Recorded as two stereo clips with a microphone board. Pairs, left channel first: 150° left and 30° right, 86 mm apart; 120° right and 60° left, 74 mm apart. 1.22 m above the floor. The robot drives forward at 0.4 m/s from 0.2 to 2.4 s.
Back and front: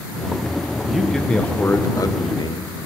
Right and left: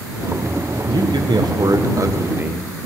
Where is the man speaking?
55° left, 0.6 m; by 2.7 s 120° left, 0.6 m.